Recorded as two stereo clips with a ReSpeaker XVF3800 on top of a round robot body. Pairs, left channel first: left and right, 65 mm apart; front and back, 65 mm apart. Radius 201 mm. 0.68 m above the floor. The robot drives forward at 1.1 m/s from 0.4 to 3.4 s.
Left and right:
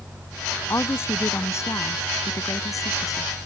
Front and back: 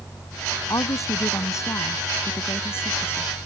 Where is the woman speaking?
40° left; by 3.3 s 60° left.